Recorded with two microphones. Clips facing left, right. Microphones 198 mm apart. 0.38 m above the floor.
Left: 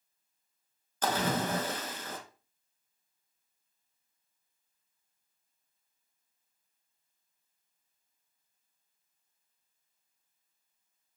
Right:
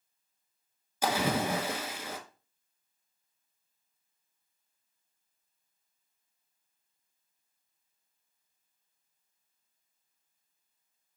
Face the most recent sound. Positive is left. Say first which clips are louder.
# right 1 dB
turn(degrees=-10)  # may be behind; listen again after turning